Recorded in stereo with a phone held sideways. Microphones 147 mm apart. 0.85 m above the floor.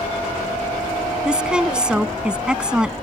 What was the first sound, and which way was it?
A woman speaking, 5° right (ahead or behind).